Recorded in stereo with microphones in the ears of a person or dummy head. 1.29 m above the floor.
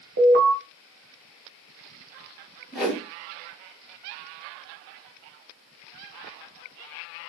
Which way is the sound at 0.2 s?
55° right (ahead or behind).